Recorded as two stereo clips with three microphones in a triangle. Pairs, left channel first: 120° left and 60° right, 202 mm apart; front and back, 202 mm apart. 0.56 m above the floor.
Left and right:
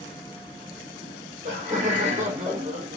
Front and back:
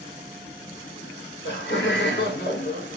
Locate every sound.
1.0 s laughter: 10° right, 2 m; by 3.0 s 15° right, 1.3 m